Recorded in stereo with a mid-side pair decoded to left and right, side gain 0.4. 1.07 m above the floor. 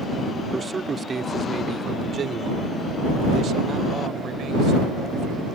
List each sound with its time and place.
0.5 s a man speaking: 30° right; by 5.5 s 70° right